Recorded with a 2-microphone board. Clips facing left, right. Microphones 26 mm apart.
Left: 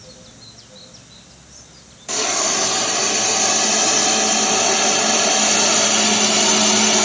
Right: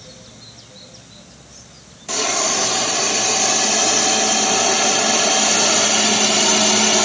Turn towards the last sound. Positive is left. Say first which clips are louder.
# right 1 dB
turn(degrees=0)  # may be behind; listen again after turning